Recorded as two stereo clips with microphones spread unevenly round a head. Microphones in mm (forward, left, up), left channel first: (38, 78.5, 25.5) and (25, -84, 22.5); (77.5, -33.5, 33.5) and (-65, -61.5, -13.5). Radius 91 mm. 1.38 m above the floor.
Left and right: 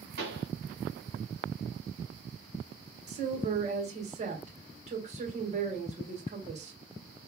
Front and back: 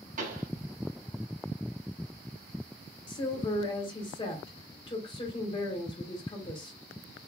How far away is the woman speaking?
About 2 m.